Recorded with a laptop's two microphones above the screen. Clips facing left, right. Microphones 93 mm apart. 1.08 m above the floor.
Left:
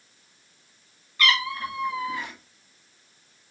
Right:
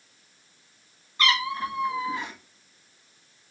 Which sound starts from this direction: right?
A cat meowing, at 1.2 s.